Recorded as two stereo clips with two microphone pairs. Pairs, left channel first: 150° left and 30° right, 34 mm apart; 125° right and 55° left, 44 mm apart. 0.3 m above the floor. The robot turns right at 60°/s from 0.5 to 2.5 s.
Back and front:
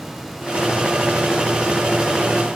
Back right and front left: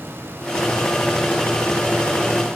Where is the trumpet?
I don't hear a trumpet.